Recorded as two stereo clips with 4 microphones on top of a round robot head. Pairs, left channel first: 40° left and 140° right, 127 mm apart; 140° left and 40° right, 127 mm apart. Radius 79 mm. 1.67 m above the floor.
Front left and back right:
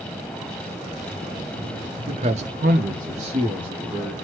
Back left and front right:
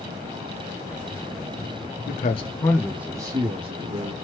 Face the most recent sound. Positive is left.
turn(degrees=-80)